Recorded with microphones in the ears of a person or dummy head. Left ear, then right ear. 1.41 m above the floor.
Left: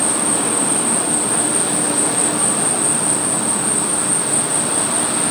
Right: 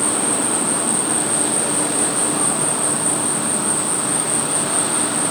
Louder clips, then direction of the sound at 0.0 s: Left 1 dB; 15° right (ahead or behind).